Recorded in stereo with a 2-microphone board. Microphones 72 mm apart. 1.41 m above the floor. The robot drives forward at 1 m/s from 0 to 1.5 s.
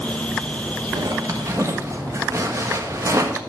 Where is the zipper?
65° right (ahead or behind), 1.2 m; by 3.4 s 45° right (ahead or behind), 1.5 m.